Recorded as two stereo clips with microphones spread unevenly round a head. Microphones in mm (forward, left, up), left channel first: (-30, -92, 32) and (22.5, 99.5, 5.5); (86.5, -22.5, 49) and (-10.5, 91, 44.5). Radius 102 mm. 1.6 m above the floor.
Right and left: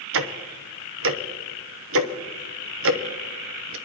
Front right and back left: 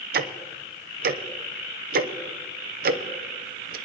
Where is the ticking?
105° left, 0.8 m.